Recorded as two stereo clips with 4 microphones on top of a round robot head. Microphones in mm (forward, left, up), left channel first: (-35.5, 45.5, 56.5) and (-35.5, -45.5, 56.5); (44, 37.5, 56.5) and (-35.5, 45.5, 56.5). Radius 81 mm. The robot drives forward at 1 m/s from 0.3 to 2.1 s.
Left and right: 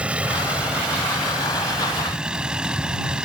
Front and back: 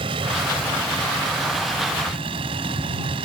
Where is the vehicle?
170° right.